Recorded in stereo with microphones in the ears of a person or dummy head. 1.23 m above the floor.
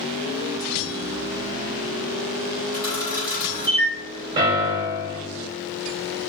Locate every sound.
2.7 s a camera shutter: 15° left (ahead or behind), 1.2 m
4.4 s a piano: 25° right (ahead or behind), 0.6 m